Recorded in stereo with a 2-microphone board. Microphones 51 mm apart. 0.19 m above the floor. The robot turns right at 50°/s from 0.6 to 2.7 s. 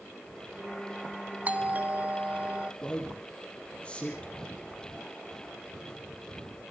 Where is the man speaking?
20° left (ahead or behind), 4.5 m.